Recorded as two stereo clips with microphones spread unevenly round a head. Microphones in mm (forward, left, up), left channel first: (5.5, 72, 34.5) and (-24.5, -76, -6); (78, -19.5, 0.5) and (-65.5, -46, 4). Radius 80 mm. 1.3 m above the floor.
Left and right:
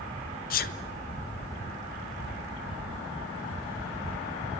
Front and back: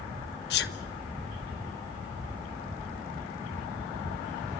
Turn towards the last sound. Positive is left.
turn(degrees=40)